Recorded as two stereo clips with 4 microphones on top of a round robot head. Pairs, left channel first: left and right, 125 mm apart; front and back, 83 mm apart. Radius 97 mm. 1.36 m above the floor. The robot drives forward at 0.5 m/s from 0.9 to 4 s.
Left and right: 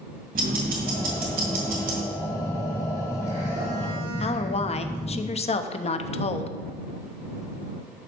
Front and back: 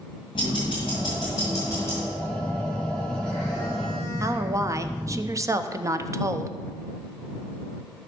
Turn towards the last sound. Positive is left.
turn(degrees=125)